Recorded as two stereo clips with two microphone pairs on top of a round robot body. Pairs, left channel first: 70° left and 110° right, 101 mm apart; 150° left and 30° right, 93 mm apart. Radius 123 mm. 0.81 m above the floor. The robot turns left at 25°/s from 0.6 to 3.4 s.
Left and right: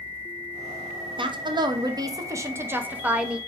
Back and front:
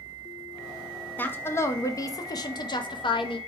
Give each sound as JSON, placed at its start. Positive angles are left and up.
{"t": 1.2, "sound": "a woman speaking", "azimuth_deg": -140, "distance_m": 0.8}